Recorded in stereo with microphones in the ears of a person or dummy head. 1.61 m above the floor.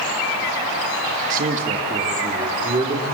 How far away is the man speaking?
About 2.5 m.